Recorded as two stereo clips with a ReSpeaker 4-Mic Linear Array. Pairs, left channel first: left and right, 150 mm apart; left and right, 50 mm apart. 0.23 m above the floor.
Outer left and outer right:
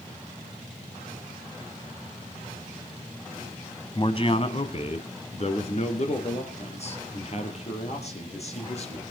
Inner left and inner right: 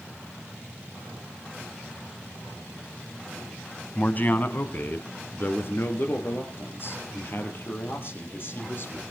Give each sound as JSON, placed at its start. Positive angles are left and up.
{"t": 4.0, "sound": "a man speaking", "side_deg": 35, "distance_m": 1.2}